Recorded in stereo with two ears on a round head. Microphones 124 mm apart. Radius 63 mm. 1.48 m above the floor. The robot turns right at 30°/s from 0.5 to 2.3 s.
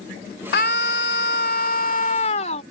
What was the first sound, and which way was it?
A scream, 75° left.